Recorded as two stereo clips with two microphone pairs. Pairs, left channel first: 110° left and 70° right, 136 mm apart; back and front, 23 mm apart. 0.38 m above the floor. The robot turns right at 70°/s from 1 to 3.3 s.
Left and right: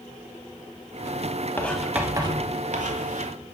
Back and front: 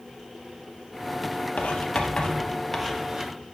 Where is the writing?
175° right, 1.3 m; by 3.5 s 55° right, 1.3 m.